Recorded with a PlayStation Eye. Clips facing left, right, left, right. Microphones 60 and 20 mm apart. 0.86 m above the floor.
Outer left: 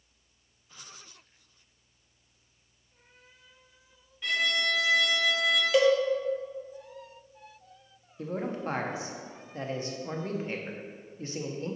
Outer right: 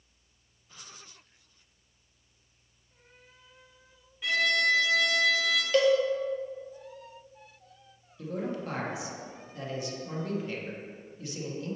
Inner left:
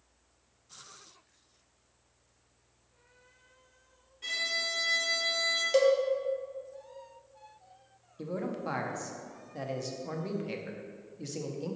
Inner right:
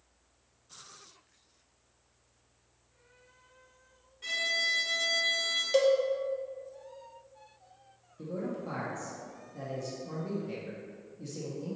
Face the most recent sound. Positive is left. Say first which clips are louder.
# outer left 1 dB, inner left 1 dB
turn(degrees=35)  # may be behind; listen again after turning